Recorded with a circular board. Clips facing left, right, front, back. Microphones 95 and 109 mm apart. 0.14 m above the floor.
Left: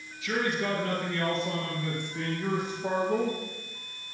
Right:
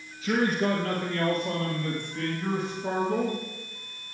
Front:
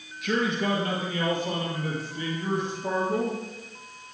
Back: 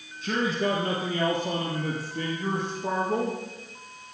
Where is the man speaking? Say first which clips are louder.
Right 4 dB, even; 140° right, 2.5 m; by 3.4 s 155° left, 4.5 m.